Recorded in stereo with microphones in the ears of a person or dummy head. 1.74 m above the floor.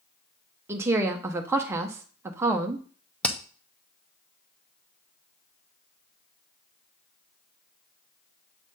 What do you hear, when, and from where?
0.7 s a woman speaking: 20° right (ahead or behind), 0.5 m
3.2 s hammering: 5° left (ahead or behind), 0.6 m